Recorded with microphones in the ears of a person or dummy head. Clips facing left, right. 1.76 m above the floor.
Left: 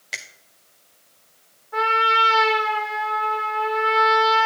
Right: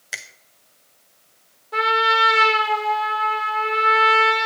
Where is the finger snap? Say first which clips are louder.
Even; 10° right (ahead or behind), 0.6 m.